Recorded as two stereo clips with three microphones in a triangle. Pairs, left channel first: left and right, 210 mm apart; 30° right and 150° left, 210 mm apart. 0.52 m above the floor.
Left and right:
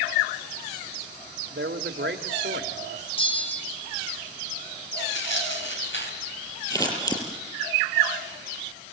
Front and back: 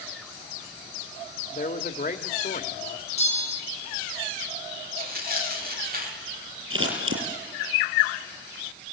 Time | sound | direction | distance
1.5 | a man speaking | 70° right | 1.5 m
3.2 | a bell | 25° left | 3 m
5.0 | tearing paper | 110° left | 4 m
6.7 | scissors | 160° left | 5.5 m